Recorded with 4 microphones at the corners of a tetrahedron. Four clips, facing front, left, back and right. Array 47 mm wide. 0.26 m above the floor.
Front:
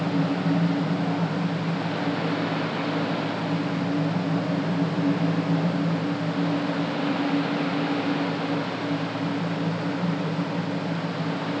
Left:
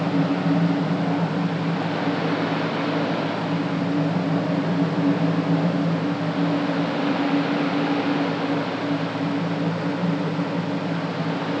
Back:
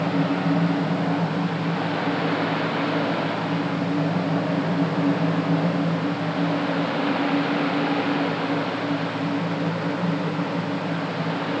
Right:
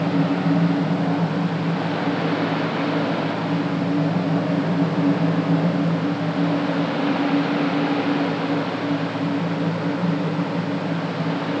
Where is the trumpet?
I don't hear a trumpet.